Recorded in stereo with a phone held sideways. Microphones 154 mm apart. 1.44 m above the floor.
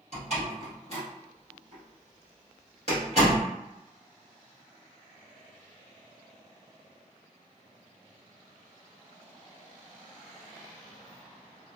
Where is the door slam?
50° right (ahead or behind), 1.7 m.